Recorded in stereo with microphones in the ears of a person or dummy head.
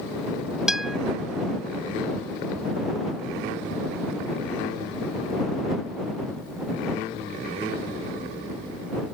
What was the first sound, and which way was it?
A guitar, 5° right (ahead or behind).